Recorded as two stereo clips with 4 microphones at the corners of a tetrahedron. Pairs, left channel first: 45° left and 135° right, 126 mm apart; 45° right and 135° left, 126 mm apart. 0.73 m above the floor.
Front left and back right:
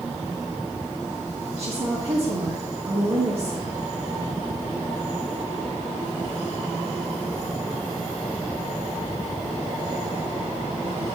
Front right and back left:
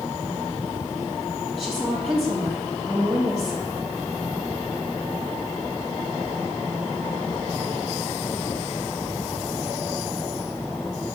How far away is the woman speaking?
About 1.4 m.